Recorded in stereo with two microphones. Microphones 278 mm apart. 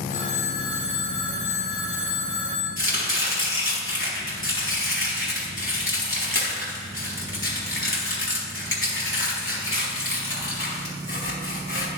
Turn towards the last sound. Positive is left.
turn(degrees=45)  # may be behind; listen again after turning